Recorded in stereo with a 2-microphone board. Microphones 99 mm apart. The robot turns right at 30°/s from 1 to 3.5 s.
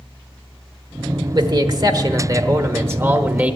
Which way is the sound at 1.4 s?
85° right.